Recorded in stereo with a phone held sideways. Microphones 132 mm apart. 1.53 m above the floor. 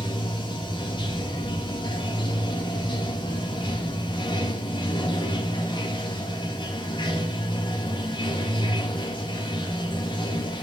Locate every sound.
0.0 s running water: 40° left (ahead or behind), 2.5 m